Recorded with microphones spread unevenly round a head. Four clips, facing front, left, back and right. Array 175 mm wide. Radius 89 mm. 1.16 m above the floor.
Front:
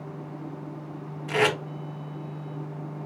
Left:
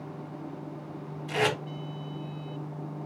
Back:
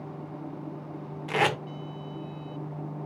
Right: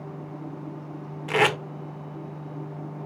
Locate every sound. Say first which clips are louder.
1.3 s tape being pulled: right 5 dB, front 2 dB; 90° right, 1.0 m